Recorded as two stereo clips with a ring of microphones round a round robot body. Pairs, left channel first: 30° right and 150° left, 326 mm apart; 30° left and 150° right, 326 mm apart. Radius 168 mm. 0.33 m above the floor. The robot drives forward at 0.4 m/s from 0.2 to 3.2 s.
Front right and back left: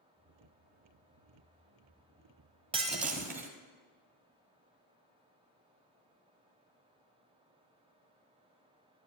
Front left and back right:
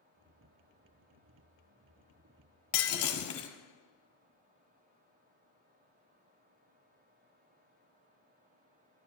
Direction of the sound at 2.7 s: 75° left.